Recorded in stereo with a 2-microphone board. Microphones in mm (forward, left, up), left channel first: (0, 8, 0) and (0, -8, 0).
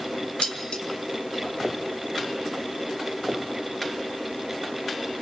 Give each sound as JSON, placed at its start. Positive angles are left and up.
{"t": 0.4, "sound": "dishes clattering", "side_deg": 80, "distance_m": 2.5}